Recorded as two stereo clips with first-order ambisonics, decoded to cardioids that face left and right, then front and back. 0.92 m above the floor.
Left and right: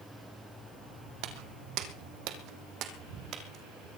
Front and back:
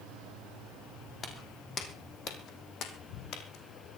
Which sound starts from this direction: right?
Footsteps, at 1.2 s.